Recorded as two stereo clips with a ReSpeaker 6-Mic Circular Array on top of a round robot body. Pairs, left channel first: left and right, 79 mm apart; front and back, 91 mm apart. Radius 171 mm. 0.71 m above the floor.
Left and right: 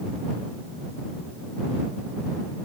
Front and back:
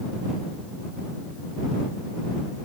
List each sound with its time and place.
Only background noise.